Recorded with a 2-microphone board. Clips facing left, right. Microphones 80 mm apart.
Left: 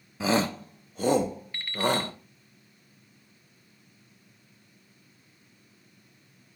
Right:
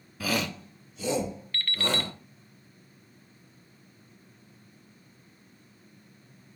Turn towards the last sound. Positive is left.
turn(degrees=15)  # may be behind; listen again after turning